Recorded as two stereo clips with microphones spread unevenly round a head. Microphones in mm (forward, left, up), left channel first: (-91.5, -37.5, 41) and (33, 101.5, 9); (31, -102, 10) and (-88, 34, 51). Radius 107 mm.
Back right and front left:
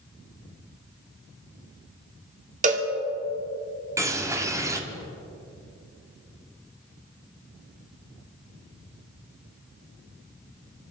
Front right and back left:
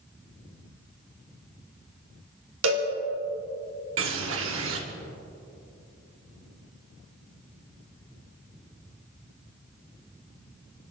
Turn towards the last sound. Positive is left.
turn(degrees=125)